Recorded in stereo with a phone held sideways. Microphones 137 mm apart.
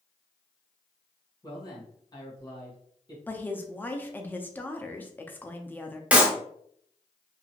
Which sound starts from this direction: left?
A man speaking, at 1.4 s.